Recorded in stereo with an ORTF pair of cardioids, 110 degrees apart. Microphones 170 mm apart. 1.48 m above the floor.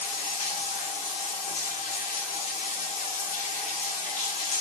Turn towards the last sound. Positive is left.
turn(degrees=55)